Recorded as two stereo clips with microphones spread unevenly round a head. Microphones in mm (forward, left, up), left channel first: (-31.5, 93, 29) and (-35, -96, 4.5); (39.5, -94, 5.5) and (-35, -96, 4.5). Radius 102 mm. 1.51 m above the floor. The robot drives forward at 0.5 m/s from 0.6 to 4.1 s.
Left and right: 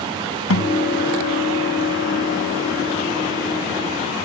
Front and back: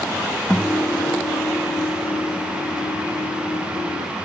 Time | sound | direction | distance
0.5 | a guitar | 85° left | ?